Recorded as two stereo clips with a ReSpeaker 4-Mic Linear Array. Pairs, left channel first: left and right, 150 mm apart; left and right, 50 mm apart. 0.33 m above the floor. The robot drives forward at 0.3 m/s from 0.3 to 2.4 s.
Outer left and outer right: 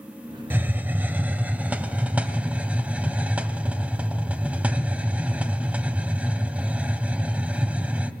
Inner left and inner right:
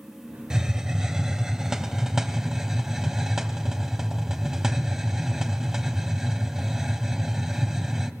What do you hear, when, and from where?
0.5 s a hiss: 15° right (ahead or behind), 0.9 m; by 8.1 s 10° right (ahead or behind), 1.4 m